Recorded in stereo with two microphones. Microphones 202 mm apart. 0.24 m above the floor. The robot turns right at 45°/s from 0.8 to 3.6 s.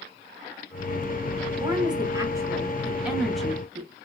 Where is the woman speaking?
20° right (ahead or behind), 1.1 m; by 3.9 s 5° left (ahead or behind), 1.1 m.